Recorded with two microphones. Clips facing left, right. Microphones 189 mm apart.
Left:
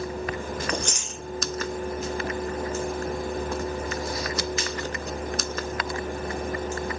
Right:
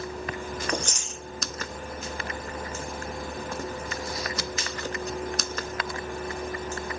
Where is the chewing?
70° left (ahead or behind), 1.9 m.